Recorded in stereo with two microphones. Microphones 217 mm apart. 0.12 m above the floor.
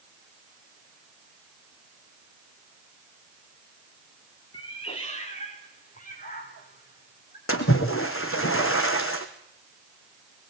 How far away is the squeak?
No squeak in this recording.